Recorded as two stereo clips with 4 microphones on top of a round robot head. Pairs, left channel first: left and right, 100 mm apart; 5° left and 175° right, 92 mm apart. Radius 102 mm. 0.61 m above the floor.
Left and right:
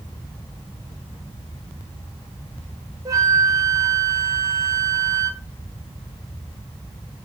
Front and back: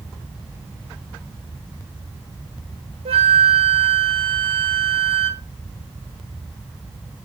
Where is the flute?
155° right, 1.7 m.